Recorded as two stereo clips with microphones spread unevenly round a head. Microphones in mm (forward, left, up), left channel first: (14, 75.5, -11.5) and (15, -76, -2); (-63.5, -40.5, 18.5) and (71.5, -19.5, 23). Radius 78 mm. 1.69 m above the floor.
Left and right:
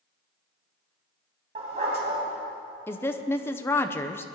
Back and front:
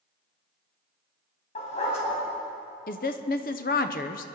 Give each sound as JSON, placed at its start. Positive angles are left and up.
{"t": 1.6, "sound": "a dog barking", "azimuth_deg": -135, "distance_m": 3.5}
{"t": 2.9, "sound": "a woman speaking", "azimuth_deg": 165, "distance_m": 0.7}